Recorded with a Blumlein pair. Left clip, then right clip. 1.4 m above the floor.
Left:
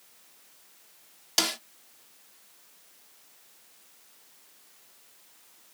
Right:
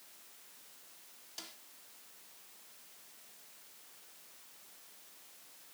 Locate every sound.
1.4 s a snare drum: 50° left